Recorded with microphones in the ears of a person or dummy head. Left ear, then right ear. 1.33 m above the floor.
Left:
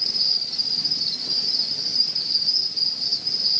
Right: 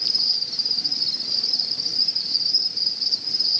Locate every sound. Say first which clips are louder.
0.0 s an insect: even; centre (ahead or behind), 0.9 m